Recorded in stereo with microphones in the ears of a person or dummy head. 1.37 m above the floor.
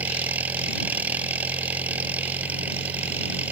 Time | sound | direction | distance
0.0 | an engine running | 10° right (ahead or behind) | ?